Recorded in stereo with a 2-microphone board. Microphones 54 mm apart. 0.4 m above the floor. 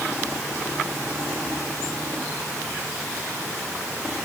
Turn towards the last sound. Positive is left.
No sound to turn to.